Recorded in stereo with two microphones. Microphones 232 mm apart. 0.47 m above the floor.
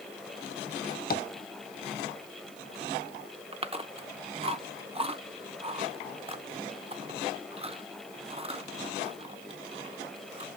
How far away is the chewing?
About 0.7 m.